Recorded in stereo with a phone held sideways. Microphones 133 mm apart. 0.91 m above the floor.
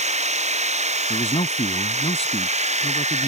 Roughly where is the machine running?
Right.